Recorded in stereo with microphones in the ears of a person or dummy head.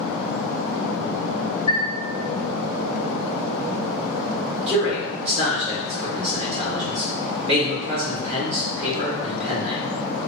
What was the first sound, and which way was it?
A chime, 30° left (ahead or behind).